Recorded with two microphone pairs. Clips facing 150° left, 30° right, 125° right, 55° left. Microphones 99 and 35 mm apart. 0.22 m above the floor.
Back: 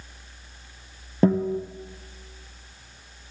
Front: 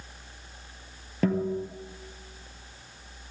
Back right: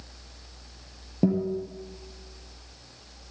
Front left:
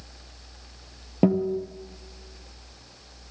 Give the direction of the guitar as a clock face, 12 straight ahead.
9 o'clock.